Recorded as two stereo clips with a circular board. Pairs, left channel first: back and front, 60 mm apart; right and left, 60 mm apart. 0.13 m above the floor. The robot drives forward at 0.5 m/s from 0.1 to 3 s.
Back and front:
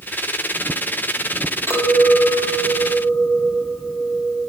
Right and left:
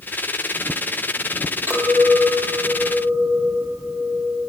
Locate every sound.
1.7 s a clink: 145° left, 2.5 m; by 4.5 s 155° left, 3 m